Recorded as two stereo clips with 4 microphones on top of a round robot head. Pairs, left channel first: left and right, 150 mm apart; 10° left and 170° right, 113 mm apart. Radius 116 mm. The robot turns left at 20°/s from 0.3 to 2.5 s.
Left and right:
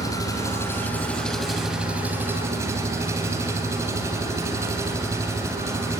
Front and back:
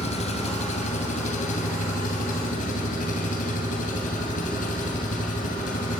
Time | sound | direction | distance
0.0 | an engine running | 25° left | 2.5 m